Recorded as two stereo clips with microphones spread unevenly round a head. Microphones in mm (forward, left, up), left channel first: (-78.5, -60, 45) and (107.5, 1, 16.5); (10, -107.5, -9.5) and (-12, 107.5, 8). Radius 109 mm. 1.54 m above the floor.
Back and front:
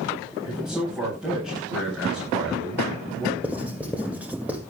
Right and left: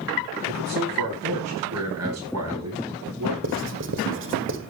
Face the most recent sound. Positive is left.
turn(degrees=105)